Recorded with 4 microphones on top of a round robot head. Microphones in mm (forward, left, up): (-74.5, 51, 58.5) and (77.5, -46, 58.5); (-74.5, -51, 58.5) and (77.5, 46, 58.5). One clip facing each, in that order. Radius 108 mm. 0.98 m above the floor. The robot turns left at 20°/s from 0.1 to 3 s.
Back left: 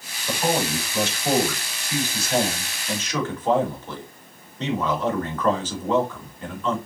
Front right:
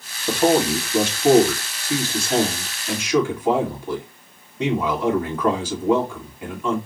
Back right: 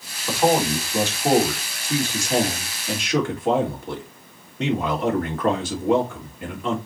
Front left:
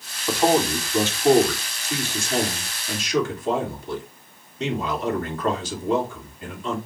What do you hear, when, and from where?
0.3 s a man speaking: 55° right, 1.9 m; by 6.8 s 110° right, 1.9 m